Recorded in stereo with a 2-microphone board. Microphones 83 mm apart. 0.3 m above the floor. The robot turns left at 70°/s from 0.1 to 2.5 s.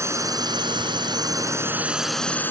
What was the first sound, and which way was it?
A drone, 40° right.